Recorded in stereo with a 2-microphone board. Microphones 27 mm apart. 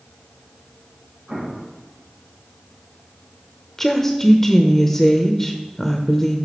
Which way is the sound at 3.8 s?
15° left (ahead or behind).